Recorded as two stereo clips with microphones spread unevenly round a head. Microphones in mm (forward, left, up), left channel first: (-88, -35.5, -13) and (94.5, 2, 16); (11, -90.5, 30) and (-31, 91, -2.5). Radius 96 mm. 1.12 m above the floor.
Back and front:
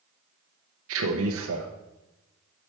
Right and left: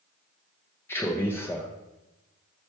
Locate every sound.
0.9 s a man speaking: 5° left, 0.8 m